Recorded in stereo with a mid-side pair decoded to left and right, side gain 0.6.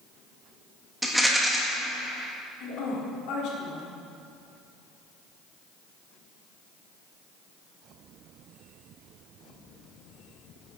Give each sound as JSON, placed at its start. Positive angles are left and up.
{"t": 1.0, "sound": "a rattle", "azimuth_deg": -5, "distance_m": 1.6}
{"t": 2.6, "sound": "a woman speaking", "azimuth_deg": 65, "distance_m": 2.5}